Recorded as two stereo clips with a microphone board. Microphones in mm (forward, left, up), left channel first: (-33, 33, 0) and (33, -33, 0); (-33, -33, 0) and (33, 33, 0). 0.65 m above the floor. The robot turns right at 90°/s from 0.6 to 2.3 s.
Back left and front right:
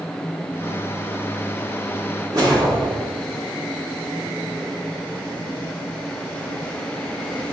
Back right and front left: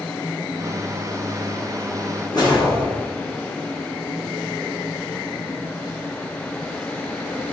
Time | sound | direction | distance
2.3 | a whoosh | 95° right | 1.8 m